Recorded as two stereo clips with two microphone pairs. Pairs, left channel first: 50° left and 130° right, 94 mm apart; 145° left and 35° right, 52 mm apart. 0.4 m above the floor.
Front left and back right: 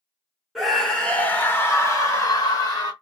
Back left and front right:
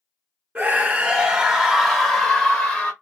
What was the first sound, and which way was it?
A scream, 35° right.